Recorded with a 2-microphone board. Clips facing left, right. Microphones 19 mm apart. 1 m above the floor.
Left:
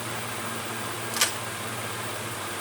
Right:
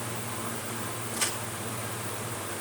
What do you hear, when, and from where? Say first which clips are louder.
1.1 s a crack: left 6 dB; 75° left (ahead or behind), 2 m